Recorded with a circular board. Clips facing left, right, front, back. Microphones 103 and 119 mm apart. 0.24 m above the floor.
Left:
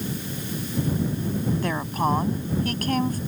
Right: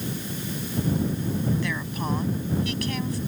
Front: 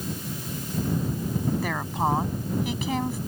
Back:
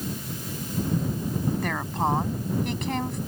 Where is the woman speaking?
85° left.